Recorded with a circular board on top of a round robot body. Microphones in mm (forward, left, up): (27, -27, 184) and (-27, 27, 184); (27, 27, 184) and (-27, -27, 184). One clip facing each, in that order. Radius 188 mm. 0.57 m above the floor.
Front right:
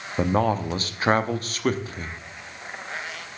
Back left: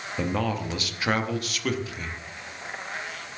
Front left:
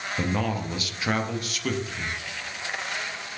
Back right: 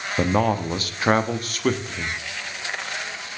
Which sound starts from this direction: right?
A man speaking, at 0.2 s.